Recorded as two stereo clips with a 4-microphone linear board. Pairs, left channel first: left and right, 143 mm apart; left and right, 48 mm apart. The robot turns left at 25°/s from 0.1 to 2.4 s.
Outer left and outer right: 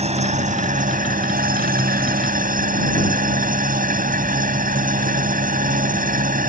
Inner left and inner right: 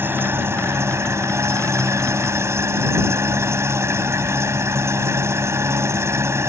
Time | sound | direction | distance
0.0 | an engine running | 50° right | ?